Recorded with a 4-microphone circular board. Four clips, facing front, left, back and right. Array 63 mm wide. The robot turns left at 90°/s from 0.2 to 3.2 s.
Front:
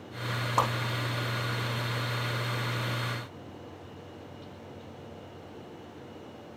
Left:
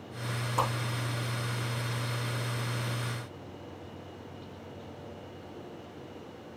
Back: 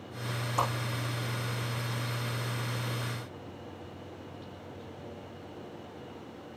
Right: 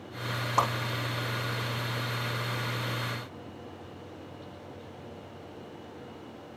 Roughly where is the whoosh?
Ahead right.